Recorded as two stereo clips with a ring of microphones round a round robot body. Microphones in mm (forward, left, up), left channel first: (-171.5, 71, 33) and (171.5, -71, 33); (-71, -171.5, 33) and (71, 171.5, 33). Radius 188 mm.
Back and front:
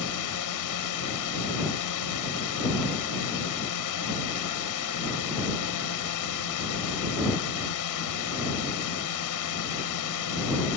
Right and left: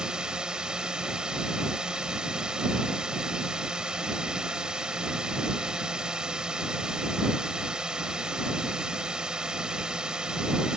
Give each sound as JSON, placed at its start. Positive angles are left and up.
{"t": 0.0, "sound": "a drone", "azimuth_deg": 155}